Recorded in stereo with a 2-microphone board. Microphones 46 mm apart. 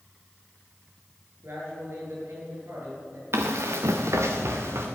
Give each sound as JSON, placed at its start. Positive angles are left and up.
{"t": 1.4, "sound": "a man speaking", "side_deg": -60, "distance_m": 7.5}
{"t": 3.3, "sound": "running footsteps", "side_deg": -60, "distance_m": 2.0}